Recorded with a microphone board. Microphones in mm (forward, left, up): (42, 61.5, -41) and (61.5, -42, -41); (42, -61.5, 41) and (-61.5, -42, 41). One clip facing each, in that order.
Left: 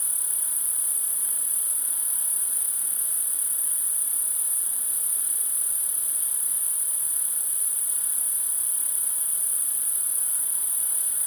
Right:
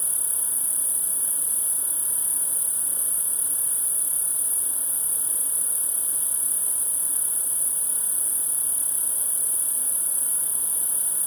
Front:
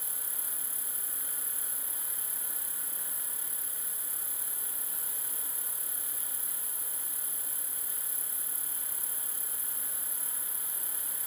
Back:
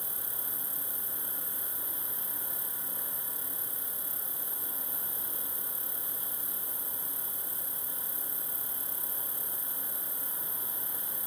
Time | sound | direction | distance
0.0 | an insect | 75° left | ?